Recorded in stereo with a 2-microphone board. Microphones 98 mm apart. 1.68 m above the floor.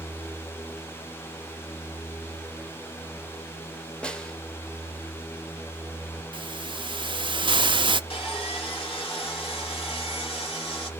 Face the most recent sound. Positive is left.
turn(degrees=55)  # may be behind; listen again after turning